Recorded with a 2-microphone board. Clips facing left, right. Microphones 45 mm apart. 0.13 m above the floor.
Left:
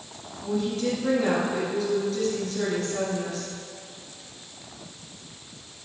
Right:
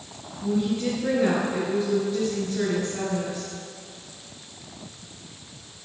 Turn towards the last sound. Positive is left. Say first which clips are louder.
# right 2 dB
turn(degrees=-20)  # may be behind; listen again after turning